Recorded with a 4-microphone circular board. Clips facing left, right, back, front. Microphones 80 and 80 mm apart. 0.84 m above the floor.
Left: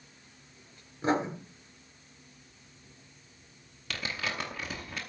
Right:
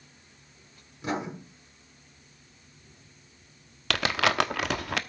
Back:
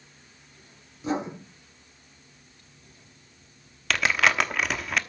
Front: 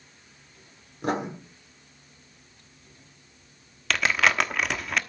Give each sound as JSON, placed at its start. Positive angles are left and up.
{"t": 1.0, "sound": "writing", "azimuth_deg": 30, "distance_m": 7.5}
{"t": 3.9, "sound": "crumpling", "azimuth_deg": -90, "distance_m": 1.0}